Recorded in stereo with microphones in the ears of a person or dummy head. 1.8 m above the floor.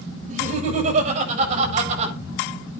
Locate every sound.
0.3 s laughter: 45° right (ahead or behind), 8 m; by 2.1 s 40° right (ahead or behind), 8.5 m